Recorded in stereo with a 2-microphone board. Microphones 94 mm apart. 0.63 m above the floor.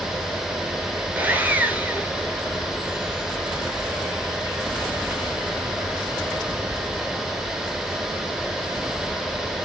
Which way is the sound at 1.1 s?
20° right (ahead or behind).